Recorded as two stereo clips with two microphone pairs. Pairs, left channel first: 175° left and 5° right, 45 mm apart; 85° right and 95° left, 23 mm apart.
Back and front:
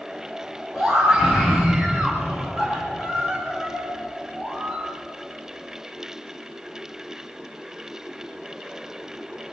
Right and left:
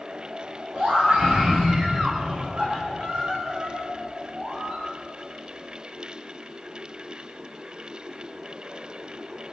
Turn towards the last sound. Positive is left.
turn(degrees=75)